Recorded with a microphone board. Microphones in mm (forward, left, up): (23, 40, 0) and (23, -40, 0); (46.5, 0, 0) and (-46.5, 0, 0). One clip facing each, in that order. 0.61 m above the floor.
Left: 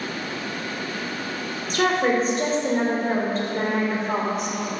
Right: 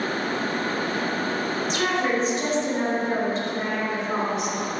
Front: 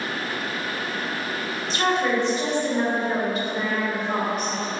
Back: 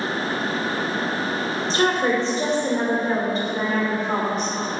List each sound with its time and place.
1.7 s a woman speaking: 125° left, 2.5 m